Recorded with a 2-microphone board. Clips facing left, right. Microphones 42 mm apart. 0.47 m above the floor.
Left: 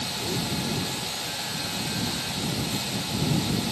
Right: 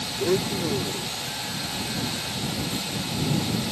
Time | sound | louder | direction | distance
0.2 | a blender | right 8 dB | 65° right (ahead or behind) | ?